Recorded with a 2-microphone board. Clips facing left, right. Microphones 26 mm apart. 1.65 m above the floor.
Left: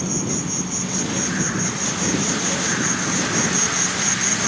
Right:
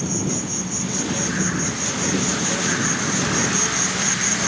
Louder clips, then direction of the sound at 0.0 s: Even; 15° left (ahead or behind).